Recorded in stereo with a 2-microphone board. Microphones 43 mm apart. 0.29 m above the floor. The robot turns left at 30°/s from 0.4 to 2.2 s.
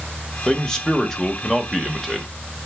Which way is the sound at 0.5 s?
15° left (ahead or behind).